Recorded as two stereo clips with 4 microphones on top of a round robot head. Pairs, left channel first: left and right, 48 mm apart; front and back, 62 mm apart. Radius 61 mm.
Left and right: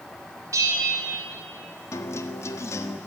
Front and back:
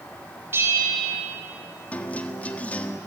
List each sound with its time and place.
0.5 s a bell: 120° right, 4.5 m
1.9 s a guitar: 70° left, 1.4 m